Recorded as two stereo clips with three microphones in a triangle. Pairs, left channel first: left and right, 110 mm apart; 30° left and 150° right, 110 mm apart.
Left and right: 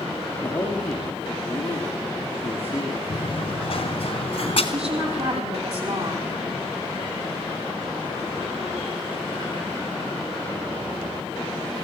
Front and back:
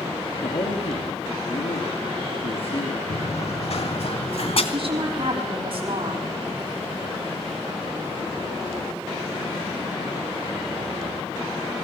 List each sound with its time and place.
0.4 s a man speaking: 20° left, 3.5 m
3.1 s running footsteps: 50° left, 1.6 m; by 4.6 s 55° left, 3 m
4.7 s a woman speaking: 115° right, 6 m